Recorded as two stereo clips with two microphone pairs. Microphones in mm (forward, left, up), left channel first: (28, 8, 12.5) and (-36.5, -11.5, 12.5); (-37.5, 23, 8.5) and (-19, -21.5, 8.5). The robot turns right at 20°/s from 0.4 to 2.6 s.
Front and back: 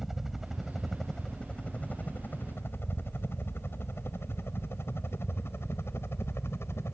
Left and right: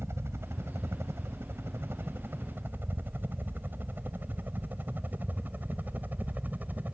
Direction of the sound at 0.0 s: 80° right.